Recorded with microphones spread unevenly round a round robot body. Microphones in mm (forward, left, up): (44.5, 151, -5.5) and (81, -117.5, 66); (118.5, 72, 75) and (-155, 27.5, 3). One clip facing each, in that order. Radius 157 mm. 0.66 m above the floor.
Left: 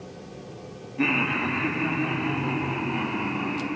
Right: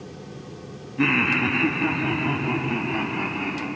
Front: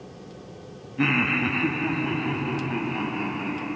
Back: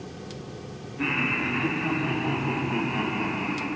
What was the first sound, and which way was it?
Laughter, 5° right.